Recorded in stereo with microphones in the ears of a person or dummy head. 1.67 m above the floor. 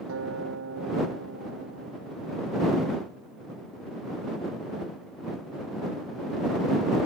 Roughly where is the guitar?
Right.